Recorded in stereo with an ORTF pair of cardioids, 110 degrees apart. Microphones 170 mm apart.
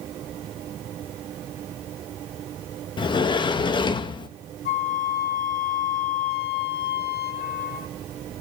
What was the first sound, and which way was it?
A sliding door, 25° left.